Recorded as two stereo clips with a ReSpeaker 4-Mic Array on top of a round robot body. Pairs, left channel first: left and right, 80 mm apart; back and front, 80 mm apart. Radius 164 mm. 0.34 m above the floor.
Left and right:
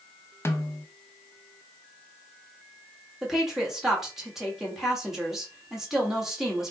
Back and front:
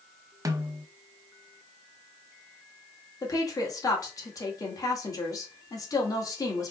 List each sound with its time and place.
0.5 s a snare drum: 35° left, 0.8 m
3.2 s a woman speaking: 175° right, 1.8 m